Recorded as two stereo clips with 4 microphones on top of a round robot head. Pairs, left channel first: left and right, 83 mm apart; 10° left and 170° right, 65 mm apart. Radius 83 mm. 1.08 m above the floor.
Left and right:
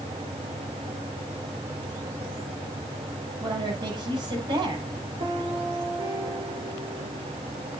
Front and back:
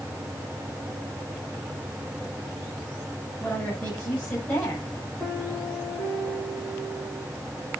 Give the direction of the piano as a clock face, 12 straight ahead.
2 o'clock.